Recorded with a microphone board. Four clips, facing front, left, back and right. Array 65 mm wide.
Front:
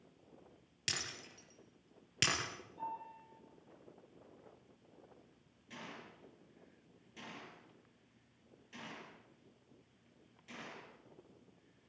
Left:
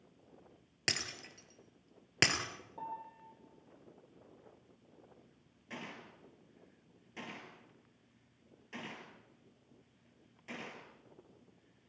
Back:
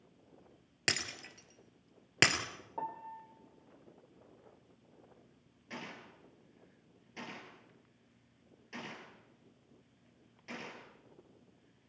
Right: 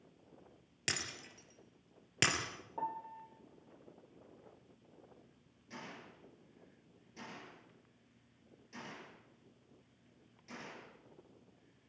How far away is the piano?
About 3 m.